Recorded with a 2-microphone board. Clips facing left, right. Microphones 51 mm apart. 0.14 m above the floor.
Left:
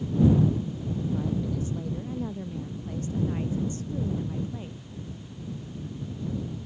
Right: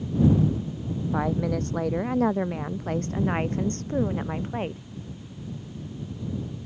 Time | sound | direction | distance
1.1 | a woman speaking | 70° right (ahead or behind) | ?